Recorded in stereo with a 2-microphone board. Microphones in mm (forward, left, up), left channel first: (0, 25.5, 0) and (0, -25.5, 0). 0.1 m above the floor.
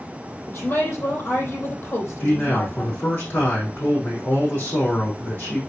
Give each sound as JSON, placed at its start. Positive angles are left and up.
{"t": 0.5, "sound": "a woman speaking", "side_deg": 45, "distance_m": 4.0}
{"t": 2.2, "sound": "a man speaking", "side_deg": 45, "distance_m": 4.5}